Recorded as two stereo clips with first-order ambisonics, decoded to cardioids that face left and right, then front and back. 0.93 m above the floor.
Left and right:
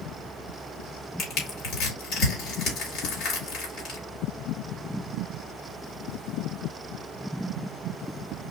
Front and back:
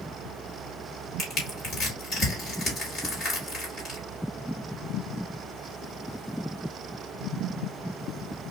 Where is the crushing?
55° left, 2.5 m.